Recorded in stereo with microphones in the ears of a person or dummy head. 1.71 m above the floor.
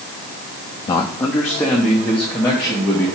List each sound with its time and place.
0.9 s a man speaking: 20° left (ahead or behind), 0.6 m; by 3.1 s 5° right (ahead or behind), 2 m